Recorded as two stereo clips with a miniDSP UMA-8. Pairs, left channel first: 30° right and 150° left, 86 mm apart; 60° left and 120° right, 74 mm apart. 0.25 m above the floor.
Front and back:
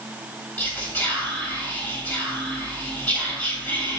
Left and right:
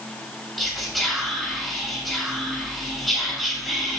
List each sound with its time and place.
0.6 s whispering: 25° right, 1.0 m